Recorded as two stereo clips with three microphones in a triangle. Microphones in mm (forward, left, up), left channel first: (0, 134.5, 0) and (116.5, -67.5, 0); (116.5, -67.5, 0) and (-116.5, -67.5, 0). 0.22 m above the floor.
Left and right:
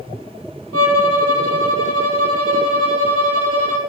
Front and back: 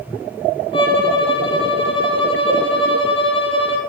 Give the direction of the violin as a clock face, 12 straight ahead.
2 o'clock.